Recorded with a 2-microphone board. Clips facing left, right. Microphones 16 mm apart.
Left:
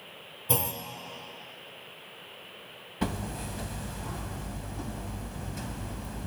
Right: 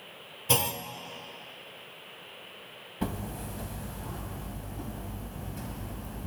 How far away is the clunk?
About 0.6 m.